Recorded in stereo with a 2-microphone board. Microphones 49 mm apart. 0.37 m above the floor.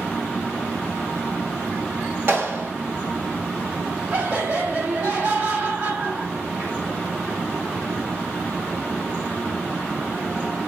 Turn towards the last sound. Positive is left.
turn(degrees=-35)  # may be behind; listen again after turning